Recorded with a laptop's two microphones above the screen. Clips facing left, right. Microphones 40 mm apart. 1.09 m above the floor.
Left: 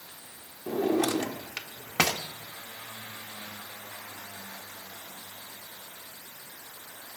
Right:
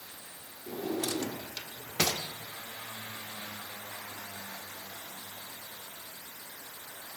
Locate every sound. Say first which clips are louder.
0.7 s a drawer: left 8 dB; 60° left (ahead or behind), 1.1 m